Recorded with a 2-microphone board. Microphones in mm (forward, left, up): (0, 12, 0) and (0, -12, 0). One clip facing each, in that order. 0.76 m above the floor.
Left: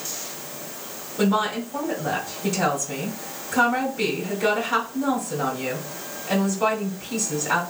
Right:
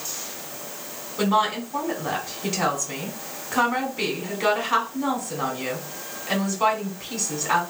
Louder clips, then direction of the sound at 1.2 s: Right 1 dB; 25° right (ahead or behind).